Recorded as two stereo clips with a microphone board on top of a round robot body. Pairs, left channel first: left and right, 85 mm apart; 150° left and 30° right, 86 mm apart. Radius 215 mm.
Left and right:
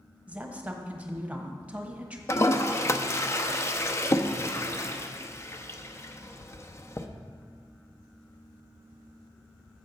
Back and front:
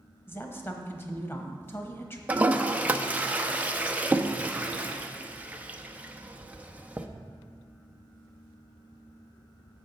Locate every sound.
0.3 s a woman speaking: 160° right, 1.3 m
2.3 s a toilet flushing: 40° left, 0.7 m